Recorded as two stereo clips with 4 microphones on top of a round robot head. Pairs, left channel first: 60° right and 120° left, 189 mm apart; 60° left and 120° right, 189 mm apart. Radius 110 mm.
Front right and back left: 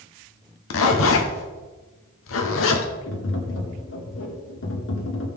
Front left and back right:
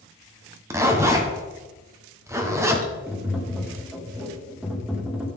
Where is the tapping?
35° right, 1.5 m.